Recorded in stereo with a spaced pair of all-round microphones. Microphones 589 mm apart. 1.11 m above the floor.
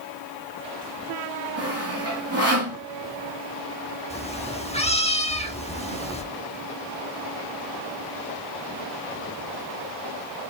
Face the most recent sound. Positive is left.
turn(degrees=10)  # may be behind; listen again after turning